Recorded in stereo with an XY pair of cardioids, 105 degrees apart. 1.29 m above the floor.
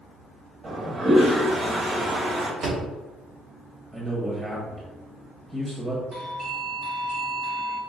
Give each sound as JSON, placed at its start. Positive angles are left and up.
{"t": 0.6, "sound": "a toilet flushing", "azimuth_deg": -40, "distance_m": 1.5}
{"t": 2.6, "sound": "a door slam", "azimuth_deg": -70, "distance_m": 1.8}
{"t": 3.9, "sound": "a man speaking", "azimuth_deg": -20, "distance_m": 1.1}
{"t": 6.1, "sound": "a doorbell", "azimuth_deg": -50, "distance_m": 1.4}